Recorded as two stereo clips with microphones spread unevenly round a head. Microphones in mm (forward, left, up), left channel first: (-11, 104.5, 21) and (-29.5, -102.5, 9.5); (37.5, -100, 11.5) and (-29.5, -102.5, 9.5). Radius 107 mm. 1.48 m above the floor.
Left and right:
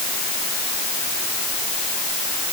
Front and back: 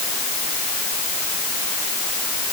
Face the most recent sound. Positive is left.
No sound to turn to.